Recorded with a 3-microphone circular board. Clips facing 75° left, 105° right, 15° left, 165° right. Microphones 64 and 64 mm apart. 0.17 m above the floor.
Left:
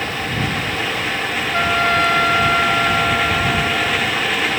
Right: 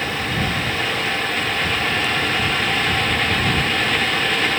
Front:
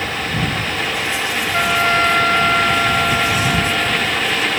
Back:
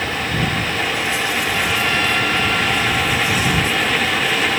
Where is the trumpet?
60° left.